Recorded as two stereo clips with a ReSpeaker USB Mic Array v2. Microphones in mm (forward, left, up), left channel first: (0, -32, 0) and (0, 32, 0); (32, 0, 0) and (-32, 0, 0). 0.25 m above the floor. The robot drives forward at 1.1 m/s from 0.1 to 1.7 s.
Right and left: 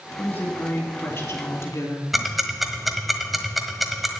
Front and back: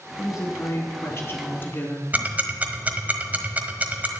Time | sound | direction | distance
0.2 | a woman speaking | 35° right | 4 m
2.1 | ticking | 175° left | 1.2 m